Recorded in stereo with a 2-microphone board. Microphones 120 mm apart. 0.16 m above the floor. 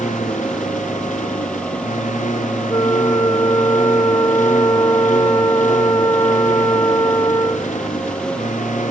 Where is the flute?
25° left (ahead or behind).